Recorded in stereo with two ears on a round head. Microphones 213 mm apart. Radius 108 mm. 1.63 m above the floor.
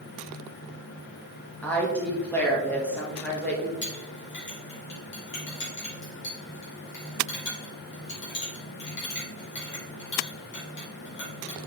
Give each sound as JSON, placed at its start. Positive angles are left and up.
{"t": 1.6, "sound": "a woman speaking", "side_deg": 5, "distance_m": 2.0}
{"t": 3.8, "sound": "a clink", "side_deg": 45, "distance_m": 3.5}